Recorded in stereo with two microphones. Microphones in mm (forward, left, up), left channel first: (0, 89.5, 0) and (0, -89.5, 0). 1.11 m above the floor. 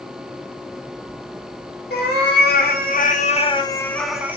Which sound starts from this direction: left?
A cat meowing, at 1.9 s.